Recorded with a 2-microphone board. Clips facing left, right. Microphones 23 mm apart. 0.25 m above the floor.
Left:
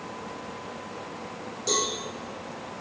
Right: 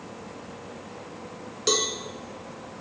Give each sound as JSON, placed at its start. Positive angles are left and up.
{"t": 1.7, "sound": "a cowbell", "side_deg": -50, "distance_m": 1.5}